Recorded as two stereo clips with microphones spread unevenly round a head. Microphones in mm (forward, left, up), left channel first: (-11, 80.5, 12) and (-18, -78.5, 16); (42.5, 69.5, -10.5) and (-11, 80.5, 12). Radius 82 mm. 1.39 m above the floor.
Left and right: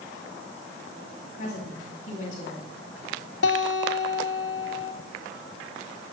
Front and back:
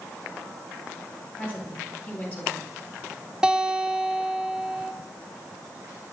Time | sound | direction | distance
1.4 | a woman speaking | 40° left | 9 m
3.4 | a guitar | 90° left | 2.5 m